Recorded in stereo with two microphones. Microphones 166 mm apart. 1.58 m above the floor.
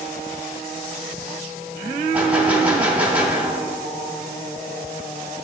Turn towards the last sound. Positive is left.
turn(degrees=-10)  # may be behind; listen again after turning